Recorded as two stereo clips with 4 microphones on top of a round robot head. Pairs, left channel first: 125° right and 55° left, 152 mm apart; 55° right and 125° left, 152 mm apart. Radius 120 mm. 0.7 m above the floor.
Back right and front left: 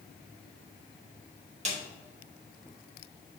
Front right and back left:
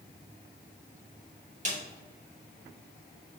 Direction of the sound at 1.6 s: 95° left.